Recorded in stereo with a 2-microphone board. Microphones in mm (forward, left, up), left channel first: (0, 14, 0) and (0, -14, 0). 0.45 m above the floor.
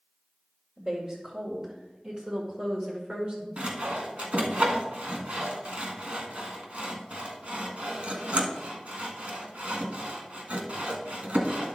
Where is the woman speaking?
30° right (ahead or behind), 2.0 m; by 3.5 s 45° right (ahead or behind), 1.7 m.